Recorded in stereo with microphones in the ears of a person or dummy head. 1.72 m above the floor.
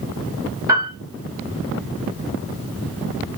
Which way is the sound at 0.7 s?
20° right (ahead or behind).